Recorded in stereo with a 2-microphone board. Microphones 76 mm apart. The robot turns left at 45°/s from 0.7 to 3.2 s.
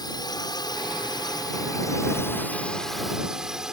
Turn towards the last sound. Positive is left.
turn(degrees=-10)